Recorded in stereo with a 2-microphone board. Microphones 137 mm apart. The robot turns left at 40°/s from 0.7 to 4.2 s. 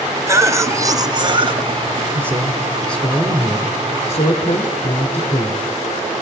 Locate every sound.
0.3 s a cough: 35° right, 1.8 m; by 2.1 s 90° right, 1.8 m
2.1 s a man speaking: 160° right, 2 m; by 5.6 s 120° left, 2 m